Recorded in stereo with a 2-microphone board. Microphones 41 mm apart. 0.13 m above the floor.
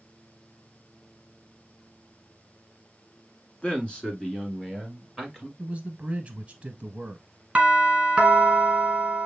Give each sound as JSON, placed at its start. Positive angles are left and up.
{"t": 3.6, "sound": "a man speaking", "side_deg": 30, "distance_m": 1.3}
{"t": 5.6, "sound": "a man speaking", "side_deg": -30, "distance_m": 1.2}
{"t": 7.5, "sound": "a doorbell", "side_deg": -20, "distance_m": 1.5}